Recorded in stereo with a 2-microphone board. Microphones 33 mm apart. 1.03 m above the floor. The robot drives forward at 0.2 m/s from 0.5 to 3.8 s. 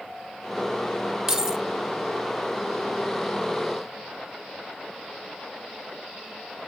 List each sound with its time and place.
1.3 s keys jangling: 15° right (ahead or behind), 0.9 m